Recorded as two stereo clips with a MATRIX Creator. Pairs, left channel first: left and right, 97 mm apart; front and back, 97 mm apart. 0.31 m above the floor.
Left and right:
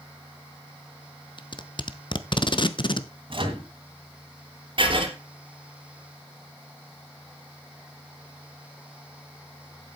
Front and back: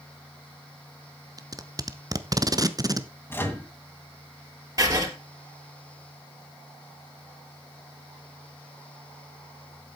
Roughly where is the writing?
Behind right.